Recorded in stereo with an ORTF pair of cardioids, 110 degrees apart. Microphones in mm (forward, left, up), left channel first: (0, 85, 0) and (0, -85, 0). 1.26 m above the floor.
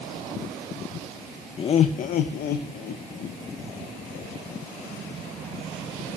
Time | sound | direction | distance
1.6 | laughter | 30° left | 0.7 m